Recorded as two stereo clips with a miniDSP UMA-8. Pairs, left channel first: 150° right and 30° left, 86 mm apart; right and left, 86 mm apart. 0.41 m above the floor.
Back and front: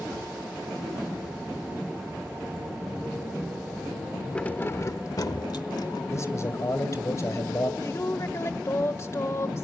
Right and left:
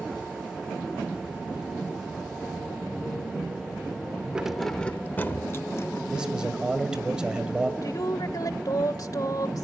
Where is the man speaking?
165° left, 2.0 m.